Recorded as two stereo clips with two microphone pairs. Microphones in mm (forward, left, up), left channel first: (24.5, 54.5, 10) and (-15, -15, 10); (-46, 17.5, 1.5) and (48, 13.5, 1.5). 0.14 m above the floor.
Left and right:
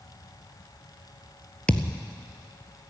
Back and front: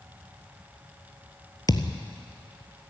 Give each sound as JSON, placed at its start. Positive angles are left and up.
{"t": 1.7, "sound": "a thud", "azimuth_deg": 135, "distance_m": 1.1}